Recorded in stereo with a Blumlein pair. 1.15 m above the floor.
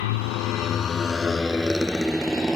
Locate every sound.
0.0 s a motorcycle: 55° left; by 2.6 s 5° right